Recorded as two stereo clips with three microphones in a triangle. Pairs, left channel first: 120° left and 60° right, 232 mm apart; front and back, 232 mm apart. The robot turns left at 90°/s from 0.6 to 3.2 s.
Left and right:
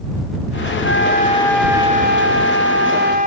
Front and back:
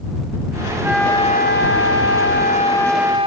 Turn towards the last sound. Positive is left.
turn(degrees=-115)